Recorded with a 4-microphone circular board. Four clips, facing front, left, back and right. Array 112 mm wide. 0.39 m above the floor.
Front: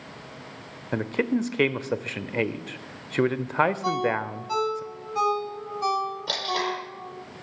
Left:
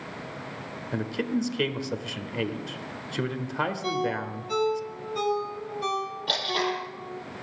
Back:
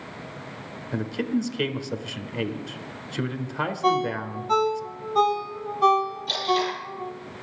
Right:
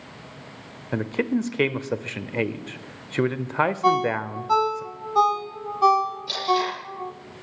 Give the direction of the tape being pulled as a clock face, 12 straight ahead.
11 o'clock.